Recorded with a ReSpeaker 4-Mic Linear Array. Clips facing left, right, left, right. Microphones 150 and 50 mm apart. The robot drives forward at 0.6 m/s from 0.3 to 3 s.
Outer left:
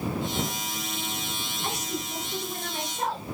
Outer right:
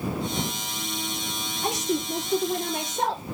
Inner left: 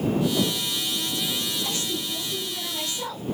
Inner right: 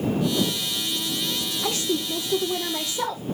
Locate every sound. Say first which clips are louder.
1.6 s a woman speaking: outer right 8 dB, inner right 4 dB; 80° right, 7 m